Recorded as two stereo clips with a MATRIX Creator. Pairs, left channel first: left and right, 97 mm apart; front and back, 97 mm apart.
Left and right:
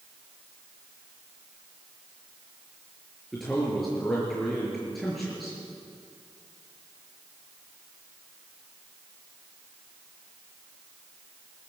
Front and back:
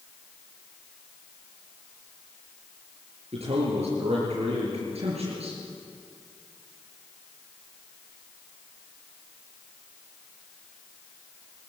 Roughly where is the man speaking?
Behind.